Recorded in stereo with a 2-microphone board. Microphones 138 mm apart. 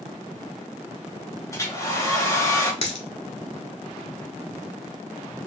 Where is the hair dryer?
25° left (ahead or behind), 1.8 m.